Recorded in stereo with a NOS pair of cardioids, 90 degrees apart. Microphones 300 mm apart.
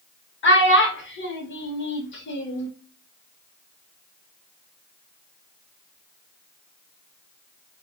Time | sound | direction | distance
0.4 | a child speaking | 40° left | 1.0 m